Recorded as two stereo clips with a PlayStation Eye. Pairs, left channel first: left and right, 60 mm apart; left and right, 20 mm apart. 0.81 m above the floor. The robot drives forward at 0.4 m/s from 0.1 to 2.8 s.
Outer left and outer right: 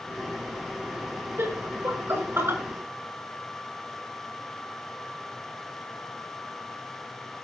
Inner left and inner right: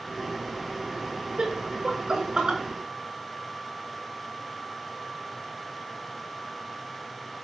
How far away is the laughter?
About 8.5 m.